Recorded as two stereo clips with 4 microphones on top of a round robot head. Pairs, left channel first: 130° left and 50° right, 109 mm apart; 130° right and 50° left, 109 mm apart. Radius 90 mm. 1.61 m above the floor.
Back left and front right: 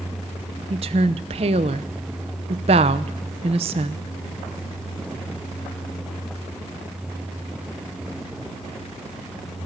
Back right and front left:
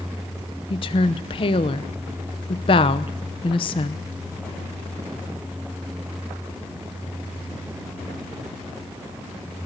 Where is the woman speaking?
85° right, 0.8 m.